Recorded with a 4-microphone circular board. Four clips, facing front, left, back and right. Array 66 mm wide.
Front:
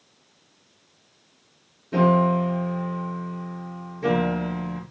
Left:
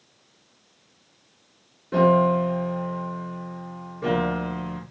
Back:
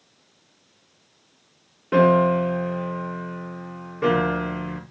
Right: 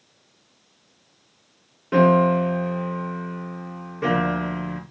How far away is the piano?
About 3.5 m.